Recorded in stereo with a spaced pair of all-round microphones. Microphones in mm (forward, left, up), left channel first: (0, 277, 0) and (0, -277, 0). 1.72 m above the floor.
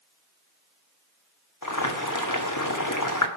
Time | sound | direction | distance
1.6 | boiling | 35° left (ahead or behind) | 1.3 m